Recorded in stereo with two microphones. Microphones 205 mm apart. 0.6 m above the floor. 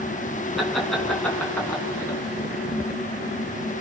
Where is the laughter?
Centre (ahead or behind), 5.5 m; by 2.2 s 10° left (ahead or behind), 5.5 m.